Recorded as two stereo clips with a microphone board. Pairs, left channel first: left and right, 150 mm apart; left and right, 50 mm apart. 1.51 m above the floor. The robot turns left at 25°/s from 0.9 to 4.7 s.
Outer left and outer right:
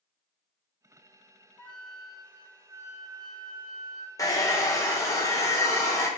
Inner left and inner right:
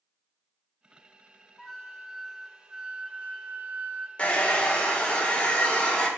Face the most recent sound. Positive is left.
turn(degrees=20)  # may be behind; listen again after turning